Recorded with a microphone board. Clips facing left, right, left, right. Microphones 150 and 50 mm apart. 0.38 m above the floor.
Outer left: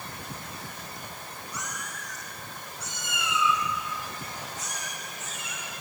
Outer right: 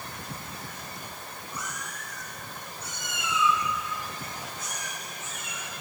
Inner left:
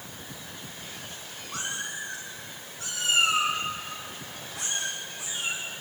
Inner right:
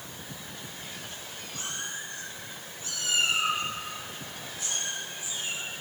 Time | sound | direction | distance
1.5 | a cat meowing | 85° left | 7.5 m